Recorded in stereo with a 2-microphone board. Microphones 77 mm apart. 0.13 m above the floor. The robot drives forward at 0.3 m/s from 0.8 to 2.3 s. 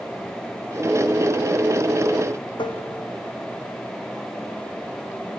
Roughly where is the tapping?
Left.